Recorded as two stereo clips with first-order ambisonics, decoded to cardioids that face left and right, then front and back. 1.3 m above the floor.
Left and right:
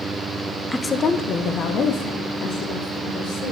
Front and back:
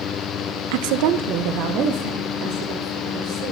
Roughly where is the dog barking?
I don't hear a dog barking.